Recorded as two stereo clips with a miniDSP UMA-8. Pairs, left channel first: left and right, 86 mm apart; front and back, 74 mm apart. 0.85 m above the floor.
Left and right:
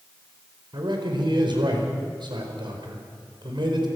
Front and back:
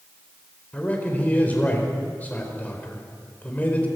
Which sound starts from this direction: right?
A man speaking, at 0.7 s.